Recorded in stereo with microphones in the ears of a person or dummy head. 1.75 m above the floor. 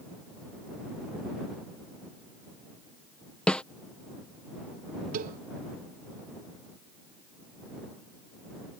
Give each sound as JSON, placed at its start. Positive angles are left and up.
{"t": 3.5, "sound": "a snare drum", "side_deg": 10}
{"t": 5.1, "sound": "a cowbell", "side_deg": -45}